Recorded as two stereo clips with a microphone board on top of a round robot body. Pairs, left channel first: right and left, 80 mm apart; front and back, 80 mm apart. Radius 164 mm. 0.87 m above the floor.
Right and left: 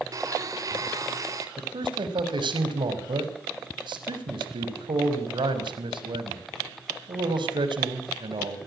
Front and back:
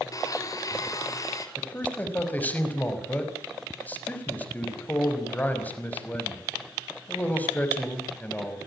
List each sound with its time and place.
0.1 s a blender: 45° left, 3.5 m
1.6 s a man speaking: 70° left, 5.5 m